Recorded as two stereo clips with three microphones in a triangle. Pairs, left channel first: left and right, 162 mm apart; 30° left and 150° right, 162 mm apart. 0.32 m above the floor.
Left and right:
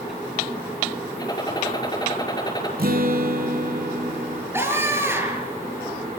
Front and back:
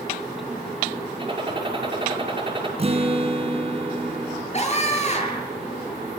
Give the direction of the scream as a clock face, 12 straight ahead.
1 o'clock.